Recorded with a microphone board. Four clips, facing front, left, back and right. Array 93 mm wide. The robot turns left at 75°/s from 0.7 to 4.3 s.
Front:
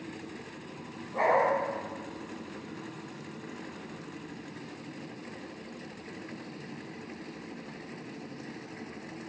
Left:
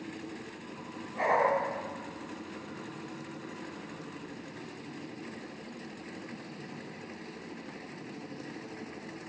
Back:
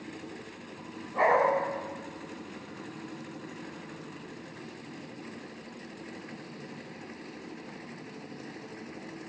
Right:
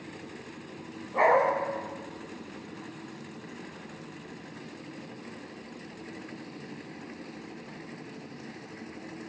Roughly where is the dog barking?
Right.